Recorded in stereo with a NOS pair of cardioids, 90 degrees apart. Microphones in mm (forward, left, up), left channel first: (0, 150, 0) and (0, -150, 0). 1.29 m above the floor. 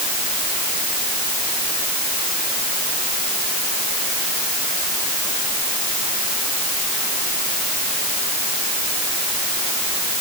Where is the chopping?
I don't hear chopping.